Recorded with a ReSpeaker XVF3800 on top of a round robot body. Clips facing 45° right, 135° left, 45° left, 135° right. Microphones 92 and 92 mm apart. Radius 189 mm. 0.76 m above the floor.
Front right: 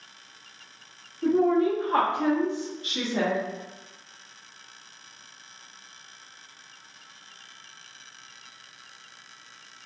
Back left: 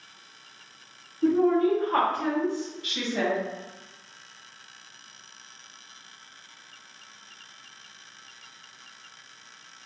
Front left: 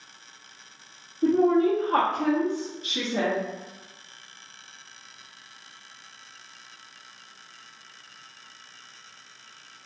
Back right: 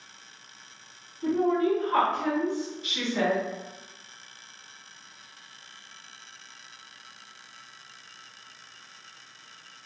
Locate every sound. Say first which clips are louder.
1.2 s a woman speaking: even, front left 4 dB; 45° left, 1.4 m; by 3.4 s 15° right, 1.6 m